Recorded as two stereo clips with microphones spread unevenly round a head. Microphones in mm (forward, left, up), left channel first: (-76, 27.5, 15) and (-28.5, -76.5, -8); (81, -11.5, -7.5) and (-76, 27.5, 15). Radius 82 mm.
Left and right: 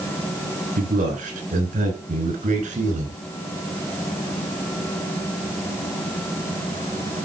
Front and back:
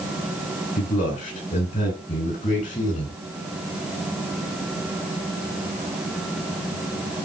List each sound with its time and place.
0.8 s a man speaking: 55° right, 6 m; by 3.2 s 60° right, 4.5 m